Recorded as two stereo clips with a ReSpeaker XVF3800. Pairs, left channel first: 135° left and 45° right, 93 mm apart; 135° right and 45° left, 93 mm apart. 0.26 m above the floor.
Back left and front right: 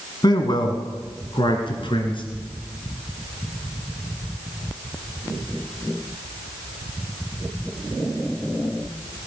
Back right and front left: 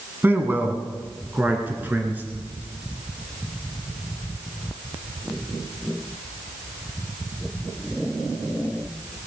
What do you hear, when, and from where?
0.2 s a man speaking: 110° left, 2.5 m; by 2.2 s 115° left, 4 m